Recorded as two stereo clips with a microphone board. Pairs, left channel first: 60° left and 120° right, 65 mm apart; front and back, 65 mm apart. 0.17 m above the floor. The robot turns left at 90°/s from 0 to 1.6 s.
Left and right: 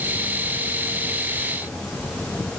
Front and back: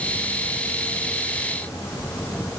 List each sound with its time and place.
Only background noise.